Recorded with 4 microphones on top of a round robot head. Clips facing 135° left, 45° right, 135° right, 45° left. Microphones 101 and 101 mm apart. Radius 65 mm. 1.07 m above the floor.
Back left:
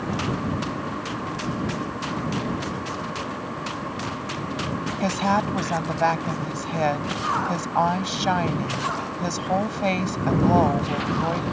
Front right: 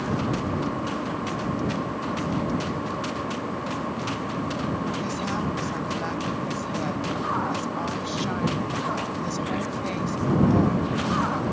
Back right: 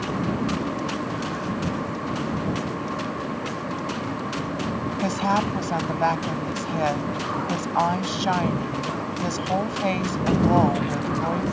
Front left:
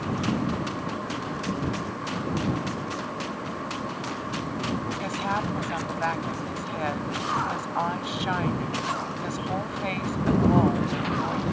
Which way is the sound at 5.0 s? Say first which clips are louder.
Back left 6 dB, back right 9 dB; 165° left.